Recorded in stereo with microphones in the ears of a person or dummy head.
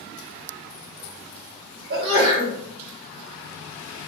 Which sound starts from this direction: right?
A sneeze, at 1.9 s.